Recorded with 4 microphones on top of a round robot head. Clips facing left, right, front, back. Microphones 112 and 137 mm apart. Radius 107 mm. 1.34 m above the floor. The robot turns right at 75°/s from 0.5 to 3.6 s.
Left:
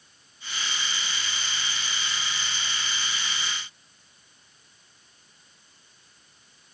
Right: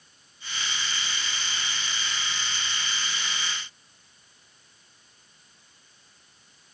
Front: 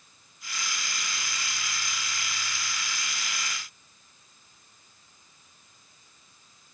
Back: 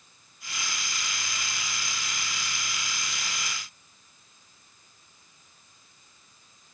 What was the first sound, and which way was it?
Only background noise.